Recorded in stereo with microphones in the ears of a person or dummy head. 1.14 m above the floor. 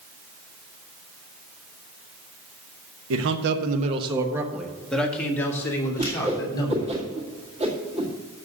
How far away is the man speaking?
About 1.0 m.